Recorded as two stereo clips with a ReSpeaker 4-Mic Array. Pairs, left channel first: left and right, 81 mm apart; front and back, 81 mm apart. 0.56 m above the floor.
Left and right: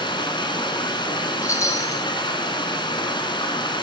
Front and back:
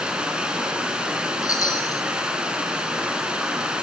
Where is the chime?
45° left, 1.8 m.